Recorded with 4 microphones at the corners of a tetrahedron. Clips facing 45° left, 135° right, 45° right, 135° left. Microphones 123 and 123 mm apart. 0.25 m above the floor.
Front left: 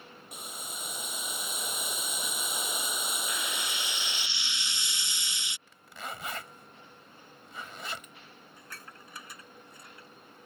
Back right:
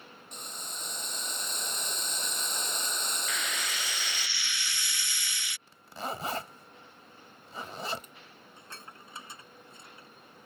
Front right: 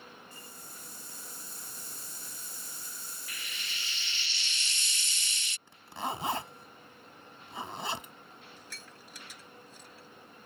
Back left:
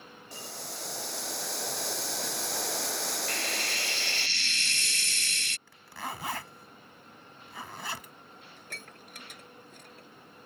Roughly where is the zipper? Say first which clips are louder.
Back right 6 dB, front right 4 dB; right.